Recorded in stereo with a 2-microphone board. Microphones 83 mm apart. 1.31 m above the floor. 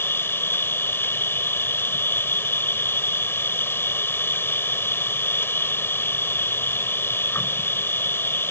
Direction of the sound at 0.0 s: 25° left (ahead or behind).